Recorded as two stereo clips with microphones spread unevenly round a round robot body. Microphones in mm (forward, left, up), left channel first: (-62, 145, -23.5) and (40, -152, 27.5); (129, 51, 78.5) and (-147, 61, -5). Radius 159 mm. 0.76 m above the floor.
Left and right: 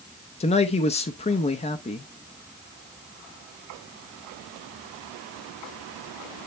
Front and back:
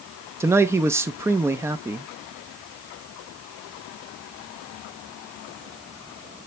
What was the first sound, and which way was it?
A man speaking, 140° left.